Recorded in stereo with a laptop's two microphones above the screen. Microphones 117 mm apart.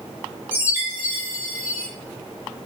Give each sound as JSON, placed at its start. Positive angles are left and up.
{"t": 0.5, "sound": "a chime", "side_deg": -20, "distance_m": 0.7}